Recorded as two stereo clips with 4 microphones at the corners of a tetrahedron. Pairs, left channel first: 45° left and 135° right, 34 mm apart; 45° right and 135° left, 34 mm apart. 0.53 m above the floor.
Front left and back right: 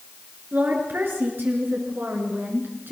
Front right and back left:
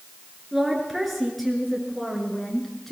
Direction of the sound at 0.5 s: 135° right.